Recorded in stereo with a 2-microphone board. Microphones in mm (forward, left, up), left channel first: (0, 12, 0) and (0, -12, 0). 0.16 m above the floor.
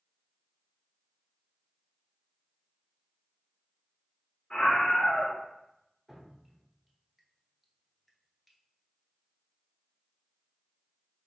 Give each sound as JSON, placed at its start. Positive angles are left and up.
{"t": 4.5, "sound": "a scream", "side_deg": 40, "distance_m": 1.9}
{"t": 6.1, "sound": "dripping", "side_deg": 0, "distance_m": 1.0}